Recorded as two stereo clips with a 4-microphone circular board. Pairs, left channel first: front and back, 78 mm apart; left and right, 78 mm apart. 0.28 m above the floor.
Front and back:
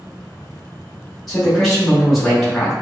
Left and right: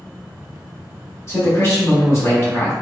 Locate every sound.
1.3 s a man speaking: 85° left, 1.3 m